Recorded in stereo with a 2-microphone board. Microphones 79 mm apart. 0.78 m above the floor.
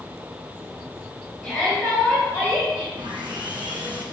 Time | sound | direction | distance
1.4 | a shout | centre (ahead or behind) | 4 m
3.0 | sawing | 75° right (ahead or behind) | 3 m